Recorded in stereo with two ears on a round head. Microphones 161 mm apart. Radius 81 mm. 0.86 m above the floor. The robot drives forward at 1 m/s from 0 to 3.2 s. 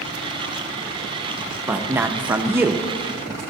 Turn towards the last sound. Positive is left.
turn(degrees=-5)  # may be behind; listen again after turning